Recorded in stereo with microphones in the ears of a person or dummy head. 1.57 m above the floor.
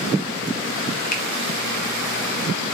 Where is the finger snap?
50° left (ahead or behind), 0.6 m.